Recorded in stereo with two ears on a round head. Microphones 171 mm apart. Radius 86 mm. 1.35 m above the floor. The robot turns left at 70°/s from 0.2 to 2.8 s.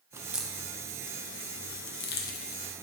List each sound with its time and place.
0.1 s a crack: 15° right (ahead or behind), 0.6 m; by 2.9 s 10° left (ahead or behind), 0.6 m